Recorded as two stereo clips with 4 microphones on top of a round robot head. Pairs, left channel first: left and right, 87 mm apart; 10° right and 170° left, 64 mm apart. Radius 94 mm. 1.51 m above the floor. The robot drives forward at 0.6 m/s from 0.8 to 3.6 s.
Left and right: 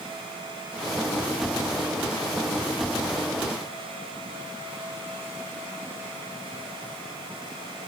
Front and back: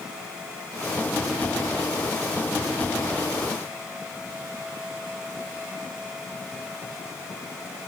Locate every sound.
Only background noise.